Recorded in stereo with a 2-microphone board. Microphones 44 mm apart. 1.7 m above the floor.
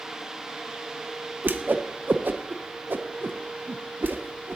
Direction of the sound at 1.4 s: 55° right (ahead or behind).